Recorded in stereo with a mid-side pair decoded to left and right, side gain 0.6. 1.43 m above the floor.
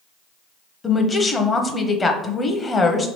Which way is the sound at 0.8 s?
25° left.